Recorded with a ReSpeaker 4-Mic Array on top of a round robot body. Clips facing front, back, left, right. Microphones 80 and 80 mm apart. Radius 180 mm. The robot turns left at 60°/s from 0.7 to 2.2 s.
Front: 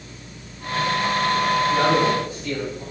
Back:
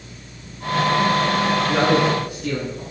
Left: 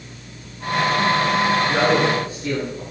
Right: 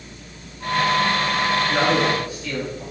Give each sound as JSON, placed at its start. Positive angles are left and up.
{"t": 1.7, "sound": "a man speaking", "azimuth_deg": 180, "distance_m": 7.0}